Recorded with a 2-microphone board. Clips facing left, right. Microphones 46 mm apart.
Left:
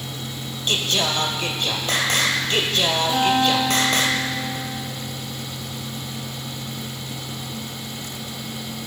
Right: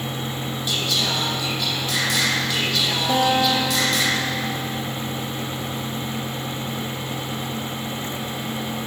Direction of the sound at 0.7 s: 65° left (ahead or behind).